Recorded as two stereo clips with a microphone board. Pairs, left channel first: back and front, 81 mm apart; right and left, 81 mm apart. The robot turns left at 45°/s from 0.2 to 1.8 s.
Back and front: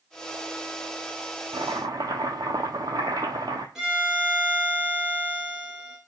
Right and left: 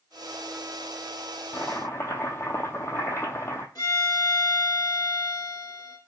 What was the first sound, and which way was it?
Chopping, 20° right.